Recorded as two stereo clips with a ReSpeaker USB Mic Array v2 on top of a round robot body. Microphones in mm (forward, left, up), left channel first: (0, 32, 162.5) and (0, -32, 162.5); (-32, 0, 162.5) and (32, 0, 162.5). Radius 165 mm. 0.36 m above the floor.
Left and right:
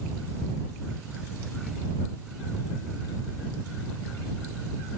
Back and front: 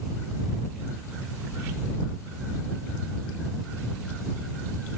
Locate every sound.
Only background noise.